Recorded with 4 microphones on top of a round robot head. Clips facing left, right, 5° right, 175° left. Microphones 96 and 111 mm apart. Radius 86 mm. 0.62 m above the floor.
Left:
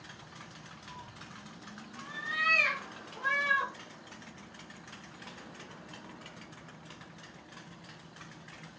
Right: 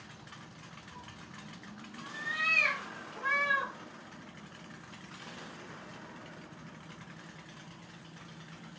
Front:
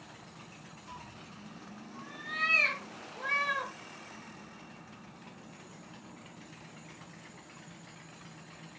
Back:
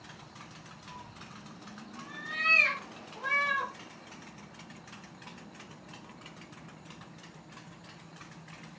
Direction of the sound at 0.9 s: 40° left.